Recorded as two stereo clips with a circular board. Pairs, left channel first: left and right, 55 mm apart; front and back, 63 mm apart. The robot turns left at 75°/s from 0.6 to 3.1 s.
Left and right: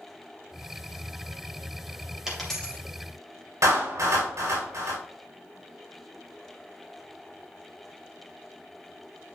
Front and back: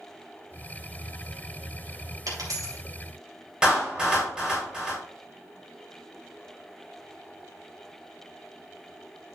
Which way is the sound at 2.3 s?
170° right.